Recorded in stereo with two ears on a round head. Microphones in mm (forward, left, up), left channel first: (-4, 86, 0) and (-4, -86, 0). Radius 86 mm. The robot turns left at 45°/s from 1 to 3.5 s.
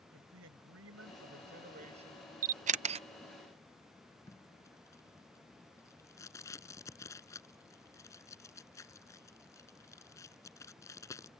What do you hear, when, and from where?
0.1 s a man speaking: 100° right; by 2.3 s 160° right
2.4 s a camera shutter: 45° right (ahead or behind); by 3.0 s 30° right (ahead or behind)
4.3 s tape being pulled: 15° left (ahead or behind)